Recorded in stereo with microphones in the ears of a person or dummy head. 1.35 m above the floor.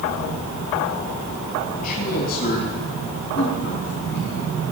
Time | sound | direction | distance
1.8 | a man speaking | 55° left (ahead or behind) | 5.5 m